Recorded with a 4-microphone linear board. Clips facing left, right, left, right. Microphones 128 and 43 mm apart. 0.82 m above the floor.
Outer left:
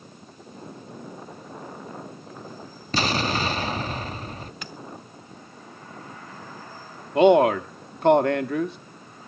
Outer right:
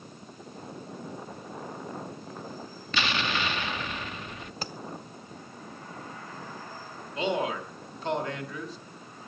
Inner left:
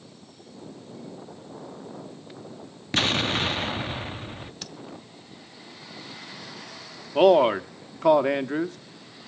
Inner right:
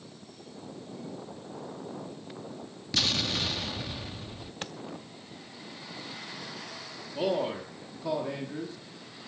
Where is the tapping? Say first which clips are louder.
Outer right 2 dB, inner right 3 dB; 35° right (ahead or behind), 1.0 m.